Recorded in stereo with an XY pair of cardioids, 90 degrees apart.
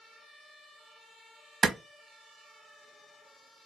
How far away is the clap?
About 0.9 m.